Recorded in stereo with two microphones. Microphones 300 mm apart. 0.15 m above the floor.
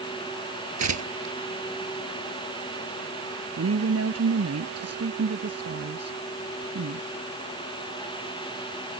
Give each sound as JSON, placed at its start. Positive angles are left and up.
{"t": 0.8, "sound": "tearing paper", "side_deg": -65}
{"t": 3.6, "sound": "a woman speaking", "side_deg": -55}